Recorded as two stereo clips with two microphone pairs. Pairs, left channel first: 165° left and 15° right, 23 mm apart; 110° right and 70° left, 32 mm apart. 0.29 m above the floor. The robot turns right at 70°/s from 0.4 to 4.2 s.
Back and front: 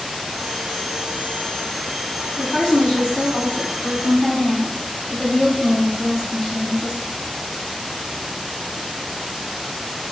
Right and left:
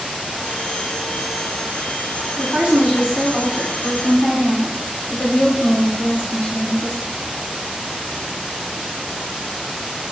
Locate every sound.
2.4 s a woman speaking: 105° left, 1.9 m; by 7.1 s 125° right, 1.9 m